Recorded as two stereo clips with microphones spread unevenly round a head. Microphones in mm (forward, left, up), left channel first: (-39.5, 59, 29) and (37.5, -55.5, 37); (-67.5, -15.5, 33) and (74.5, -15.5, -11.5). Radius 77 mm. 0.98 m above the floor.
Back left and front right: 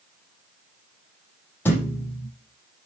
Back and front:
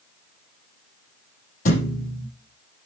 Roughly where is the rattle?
I don't hear a rattle.